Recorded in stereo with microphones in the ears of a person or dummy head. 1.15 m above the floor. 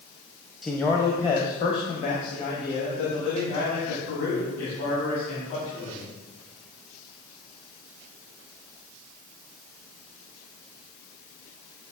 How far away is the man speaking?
About 0.7 m.